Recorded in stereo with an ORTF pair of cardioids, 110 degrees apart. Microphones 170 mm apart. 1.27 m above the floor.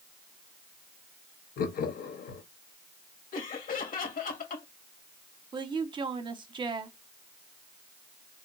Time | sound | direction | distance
1.6 | laughter | 60° left | 1.3 m
3.3 | laughter | 55° left | 1.9 m
5.5 | a woman speaking | 30° right | 1.0 m